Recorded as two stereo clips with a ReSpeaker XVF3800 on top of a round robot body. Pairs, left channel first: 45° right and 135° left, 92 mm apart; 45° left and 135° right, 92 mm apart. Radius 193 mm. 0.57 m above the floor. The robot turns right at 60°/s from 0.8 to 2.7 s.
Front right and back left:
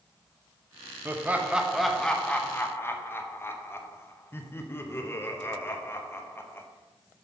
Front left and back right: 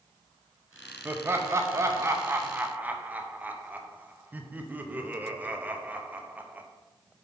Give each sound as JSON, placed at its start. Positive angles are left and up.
{"t": 1.1, "sound": "laughter", "azimuth_deg": 180, "distance_m": 1.0}